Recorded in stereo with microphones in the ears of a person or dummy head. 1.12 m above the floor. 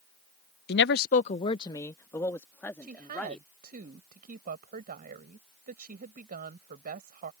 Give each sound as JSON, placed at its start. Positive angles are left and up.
{"t": 0.7, "sound": "a man speaking", "side_deg": 45}
{"t": 2.8, "sound": "a woman speaking", "side_deg": -45}